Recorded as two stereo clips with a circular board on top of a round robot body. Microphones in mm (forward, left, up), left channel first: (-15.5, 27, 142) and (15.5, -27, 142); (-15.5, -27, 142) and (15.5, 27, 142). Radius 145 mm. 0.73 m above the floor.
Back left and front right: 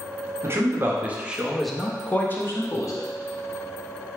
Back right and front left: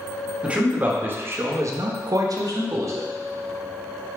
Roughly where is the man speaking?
Ahead.